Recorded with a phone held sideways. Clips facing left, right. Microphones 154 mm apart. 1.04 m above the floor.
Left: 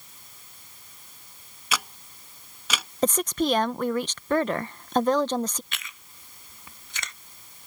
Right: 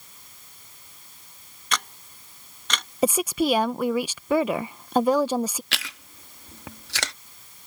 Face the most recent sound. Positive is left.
turn(degrees=-75)  # may be behind; listen again after turning